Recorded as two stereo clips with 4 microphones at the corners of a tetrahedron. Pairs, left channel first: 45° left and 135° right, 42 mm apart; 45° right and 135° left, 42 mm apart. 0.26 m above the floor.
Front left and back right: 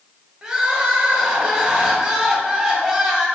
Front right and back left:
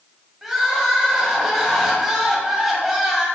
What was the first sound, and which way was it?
Crying, 160° right.